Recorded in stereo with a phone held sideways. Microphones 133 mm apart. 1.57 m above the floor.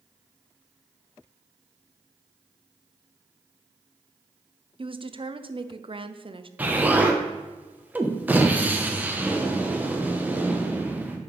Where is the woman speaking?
45° right (ahead or behind), 0.6 m.